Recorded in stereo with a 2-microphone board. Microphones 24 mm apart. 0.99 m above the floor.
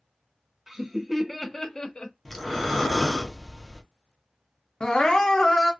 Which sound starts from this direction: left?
Crying, at 4.8 s.